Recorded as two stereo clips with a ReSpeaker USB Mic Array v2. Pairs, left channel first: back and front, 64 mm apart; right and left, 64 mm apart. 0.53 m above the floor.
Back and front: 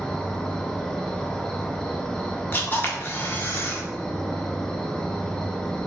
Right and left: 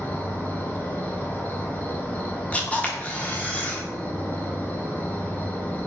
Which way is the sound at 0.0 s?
115° right.